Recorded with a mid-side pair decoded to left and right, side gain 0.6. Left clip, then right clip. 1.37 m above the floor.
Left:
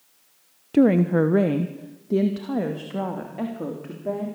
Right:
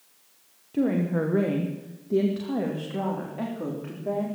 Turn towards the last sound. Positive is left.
turn(degrees=15)